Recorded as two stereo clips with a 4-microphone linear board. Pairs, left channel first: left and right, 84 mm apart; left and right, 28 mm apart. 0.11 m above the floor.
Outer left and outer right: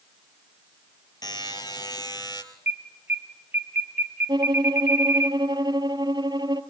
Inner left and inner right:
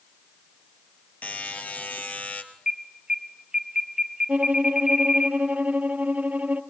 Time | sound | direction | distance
1.2 | a buzzer | 55° left (ahead or behind) | 2.5 m
2.7 | an alarm | 25° right (ahead or behind) | 2 m
4.3 | a violin | 55° right (ahead or behind) | 1.5 m